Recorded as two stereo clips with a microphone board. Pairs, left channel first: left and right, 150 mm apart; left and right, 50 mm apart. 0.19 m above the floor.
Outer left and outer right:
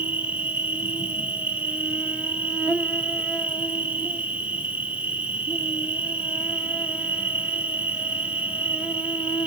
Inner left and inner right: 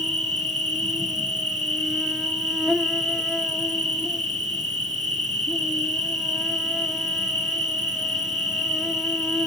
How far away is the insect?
About 1.1 m.